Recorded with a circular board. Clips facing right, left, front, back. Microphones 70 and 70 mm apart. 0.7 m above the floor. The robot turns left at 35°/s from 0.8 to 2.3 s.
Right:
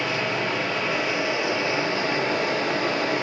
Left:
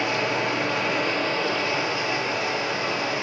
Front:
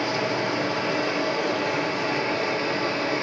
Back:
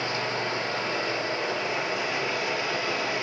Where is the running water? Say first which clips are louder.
Left 1 dB, front 4 dB; 5° left, 5 m; by 3.2 s 50° right, 5 m.